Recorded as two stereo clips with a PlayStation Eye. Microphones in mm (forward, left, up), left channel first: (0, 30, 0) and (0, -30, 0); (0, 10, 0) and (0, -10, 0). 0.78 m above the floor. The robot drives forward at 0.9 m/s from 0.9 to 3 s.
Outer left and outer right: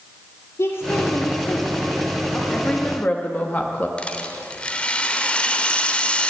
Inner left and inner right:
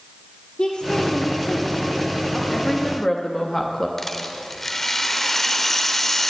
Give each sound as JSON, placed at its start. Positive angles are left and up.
{"t": 0.6, "sound": "a woman speaking", "side_deg": 55, "distance_m": 1.9}
{"t": 2.5, "sound": "a woman speaking", "side_deg": 20, "distance_m": 1.4}
{"t": 4.0, "sound": "a rattle", "side_deg": 20, "distance_m": 0.9}